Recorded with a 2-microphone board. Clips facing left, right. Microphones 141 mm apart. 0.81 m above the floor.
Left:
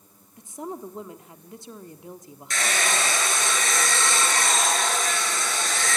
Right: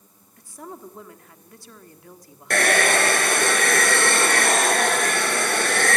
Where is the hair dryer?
60° right (ahead or behind), 1.9 m.